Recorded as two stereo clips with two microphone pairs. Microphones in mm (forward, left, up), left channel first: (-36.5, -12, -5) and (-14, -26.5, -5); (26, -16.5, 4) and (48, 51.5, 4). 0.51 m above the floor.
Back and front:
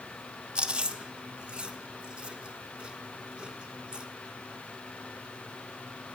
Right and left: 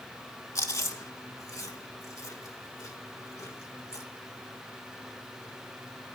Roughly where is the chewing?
Right.